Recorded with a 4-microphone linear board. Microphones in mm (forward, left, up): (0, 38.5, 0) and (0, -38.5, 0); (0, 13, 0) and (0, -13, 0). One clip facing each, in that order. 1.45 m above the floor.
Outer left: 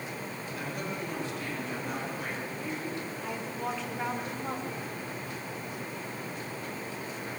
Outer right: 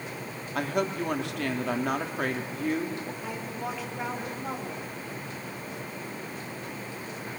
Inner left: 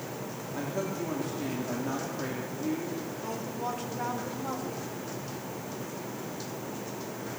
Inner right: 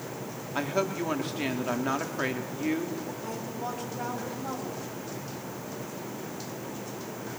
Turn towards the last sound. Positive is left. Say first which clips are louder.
# even, inner left 1 dB
turn(degrees=0)  # may be behind; listen again after turning